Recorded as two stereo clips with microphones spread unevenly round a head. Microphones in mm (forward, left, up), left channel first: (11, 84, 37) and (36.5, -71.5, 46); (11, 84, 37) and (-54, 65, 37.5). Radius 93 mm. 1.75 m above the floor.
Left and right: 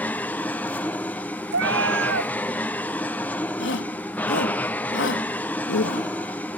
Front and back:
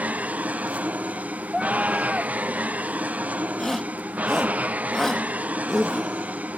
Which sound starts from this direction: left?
A shout, at 3.6 s.